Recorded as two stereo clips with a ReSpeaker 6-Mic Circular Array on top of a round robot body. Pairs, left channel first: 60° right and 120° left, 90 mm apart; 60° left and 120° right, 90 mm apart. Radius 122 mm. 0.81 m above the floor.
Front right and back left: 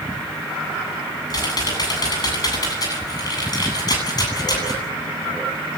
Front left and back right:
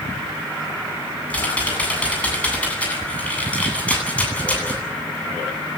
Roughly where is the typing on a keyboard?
Ahead.